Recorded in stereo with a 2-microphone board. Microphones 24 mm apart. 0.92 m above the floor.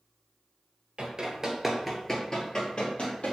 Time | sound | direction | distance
1.0 | running footsteps | 35° right (ahead or behind) | 1.0 m